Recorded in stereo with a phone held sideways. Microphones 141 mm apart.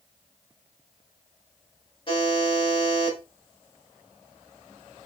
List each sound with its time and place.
2.1 s a buzzer: 40° left (ahead or behind), 2 m